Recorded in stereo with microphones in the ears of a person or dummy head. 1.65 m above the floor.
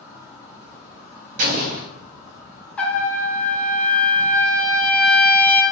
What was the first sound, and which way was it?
An insect, 20° right (ahead or behind).